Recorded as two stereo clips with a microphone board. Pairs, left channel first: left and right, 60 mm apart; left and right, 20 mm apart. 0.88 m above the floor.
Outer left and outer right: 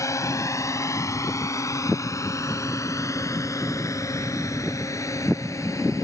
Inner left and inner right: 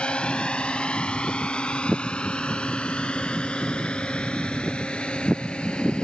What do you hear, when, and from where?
0.0 s a drone: 60° left (ahead or behind)